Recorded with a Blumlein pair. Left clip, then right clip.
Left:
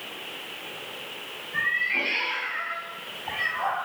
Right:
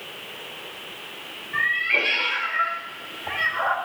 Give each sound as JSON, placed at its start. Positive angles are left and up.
{"t": 1.5, "sound": "a cat meowing", "azimuth_deg": -30, "distance_m": 3.0}